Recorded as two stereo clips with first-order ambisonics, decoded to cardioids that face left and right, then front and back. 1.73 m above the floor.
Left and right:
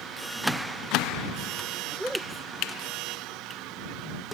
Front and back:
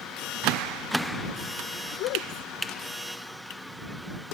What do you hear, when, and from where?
1.9 s a woman speaking: 5° right